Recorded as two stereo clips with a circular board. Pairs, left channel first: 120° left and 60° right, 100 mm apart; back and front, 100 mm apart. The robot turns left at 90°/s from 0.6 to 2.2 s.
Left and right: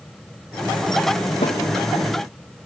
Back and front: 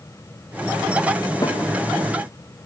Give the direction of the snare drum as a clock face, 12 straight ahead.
8 o'clock.